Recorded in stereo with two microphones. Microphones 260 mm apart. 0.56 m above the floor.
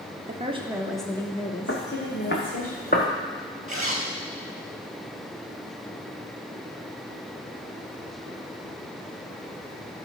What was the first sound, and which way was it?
A woman speaking, 30° right (ahead or behind).